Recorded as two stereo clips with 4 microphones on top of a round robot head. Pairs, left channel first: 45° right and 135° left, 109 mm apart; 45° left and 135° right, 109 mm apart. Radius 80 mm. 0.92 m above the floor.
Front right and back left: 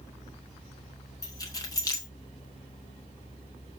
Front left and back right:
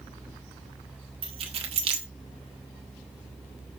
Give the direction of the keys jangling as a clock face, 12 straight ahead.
3 o'clock.